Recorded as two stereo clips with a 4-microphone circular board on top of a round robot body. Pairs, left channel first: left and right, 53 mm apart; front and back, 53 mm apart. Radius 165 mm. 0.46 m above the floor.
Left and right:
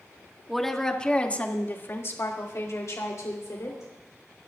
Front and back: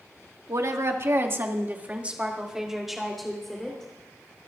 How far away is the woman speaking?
About 2.5 m.